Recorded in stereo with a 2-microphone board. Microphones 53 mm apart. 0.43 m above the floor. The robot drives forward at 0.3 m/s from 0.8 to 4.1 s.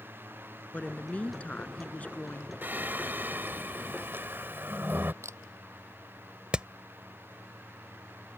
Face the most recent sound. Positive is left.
turn(degrees=-20)  # may be behind; listen again after turning